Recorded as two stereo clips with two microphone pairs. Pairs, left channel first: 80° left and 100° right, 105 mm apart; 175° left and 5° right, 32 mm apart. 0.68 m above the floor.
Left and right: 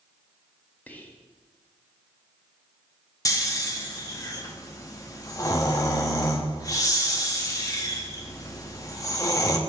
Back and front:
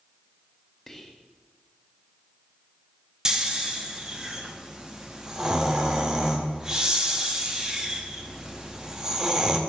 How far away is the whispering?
About 0.8 m.